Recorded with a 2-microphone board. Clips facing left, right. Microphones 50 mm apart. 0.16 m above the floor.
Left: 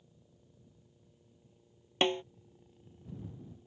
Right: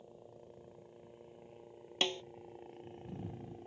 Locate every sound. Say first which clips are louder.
0.0 s a helicopter: right 11 dB; 55° right (ahead or behind)
2.0 s a snare drum: left 6 dB; 25° left (ahead or behind)